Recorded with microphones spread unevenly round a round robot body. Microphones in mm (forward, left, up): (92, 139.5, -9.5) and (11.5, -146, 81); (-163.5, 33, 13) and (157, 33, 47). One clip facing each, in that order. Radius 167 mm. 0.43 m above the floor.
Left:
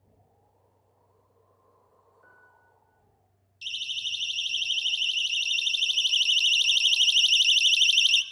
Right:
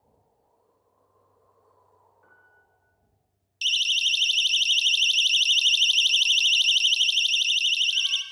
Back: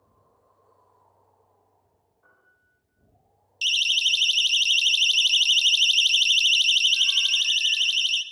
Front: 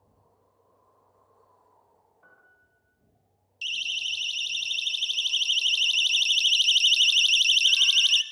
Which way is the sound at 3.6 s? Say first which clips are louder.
Right 9 dB, back 7 dB; 145° right.